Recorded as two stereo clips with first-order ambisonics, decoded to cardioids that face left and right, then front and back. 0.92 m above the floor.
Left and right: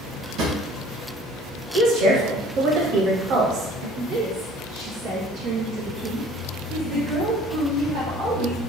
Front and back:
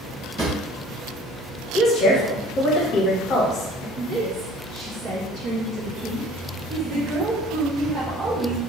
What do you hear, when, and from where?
0.4 s a drawer: 115° right, 1.2 m
1.7 s a woman speaking: 55° right, 1.1 m
4.0 s a woman speaking: 140° right, 0.8 m